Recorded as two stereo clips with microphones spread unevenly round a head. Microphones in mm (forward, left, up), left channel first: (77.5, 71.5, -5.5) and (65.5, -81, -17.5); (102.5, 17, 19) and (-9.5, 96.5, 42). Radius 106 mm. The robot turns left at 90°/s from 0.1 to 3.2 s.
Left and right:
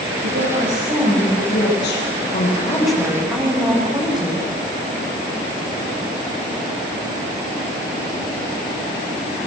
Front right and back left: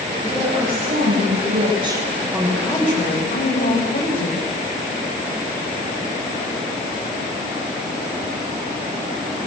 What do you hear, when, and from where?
0.2 s a woman speaking: 100° right, 6 m; by 4.4 s 10° right, 6 m